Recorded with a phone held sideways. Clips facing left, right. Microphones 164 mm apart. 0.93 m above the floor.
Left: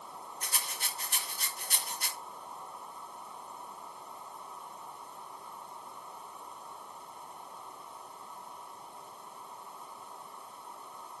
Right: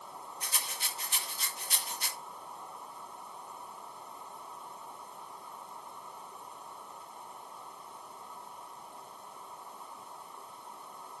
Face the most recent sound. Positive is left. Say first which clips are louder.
# left 1 dB
turn(degrees=45)  # may be behind; listen again after turning